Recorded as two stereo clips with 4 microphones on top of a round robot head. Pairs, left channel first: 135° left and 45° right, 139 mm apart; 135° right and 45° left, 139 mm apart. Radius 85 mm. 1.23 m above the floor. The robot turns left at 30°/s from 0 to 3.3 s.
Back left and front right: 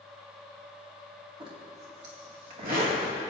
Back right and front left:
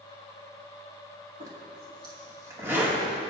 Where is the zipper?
10° left, 2 m; by 3.3 s 45° right, 2 m.